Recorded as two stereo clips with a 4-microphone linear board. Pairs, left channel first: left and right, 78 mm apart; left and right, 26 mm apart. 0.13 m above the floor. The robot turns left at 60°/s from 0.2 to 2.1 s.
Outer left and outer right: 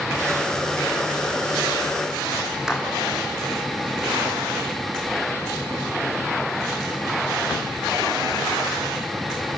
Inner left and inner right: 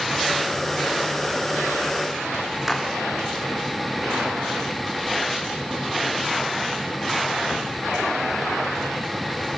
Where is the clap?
10° right (ahead or behind), 4.5 m.